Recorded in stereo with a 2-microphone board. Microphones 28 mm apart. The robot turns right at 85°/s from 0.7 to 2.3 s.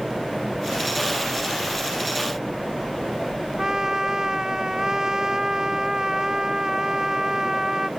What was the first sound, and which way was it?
A trumpet, 25° right (ahead or behind).